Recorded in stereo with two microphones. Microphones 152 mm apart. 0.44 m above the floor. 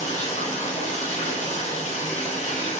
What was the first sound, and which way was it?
Running water, 50° left (ahead or behind).